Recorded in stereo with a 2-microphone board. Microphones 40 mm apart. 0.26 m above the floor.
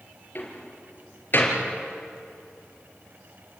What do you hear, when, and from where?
0.3 s a door slam: 45° left (ahead or behind), 4.5 m